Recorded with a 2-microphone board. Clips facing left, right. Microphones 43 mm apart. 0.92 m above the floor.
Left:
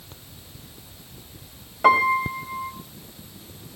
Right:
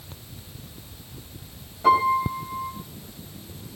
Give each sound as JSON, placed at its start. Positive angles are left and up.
{"t": 1.8, "sound": "a piano", "side_deg": 80, "distance_m": 3.0}